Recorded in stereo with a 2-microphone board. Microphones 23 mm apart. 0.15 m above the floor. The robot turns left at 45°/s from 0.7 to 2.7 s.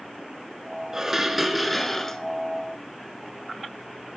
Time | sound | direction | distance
0.9 | dishes clattering | 155° right | 1.4 m